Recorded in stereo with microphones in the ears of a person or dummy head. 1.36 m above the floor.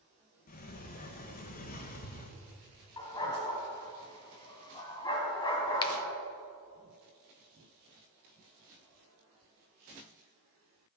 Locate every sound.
0.5 s a sliding door: 40° left (ahead or behind), 1.1 m
3.0 s a dog barking: 20° left (ahead or behind), 2.5 m
5.8 s a finger snap: 25° left (ahead or behind), 0.9 m